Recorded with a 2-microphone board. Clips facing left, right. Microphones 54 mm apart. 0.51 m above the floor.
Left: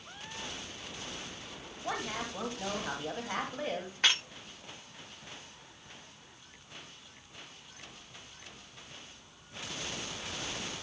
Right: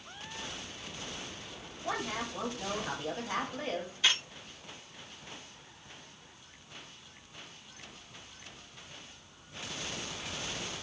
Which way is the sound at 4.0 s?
55° left (ahead or behind).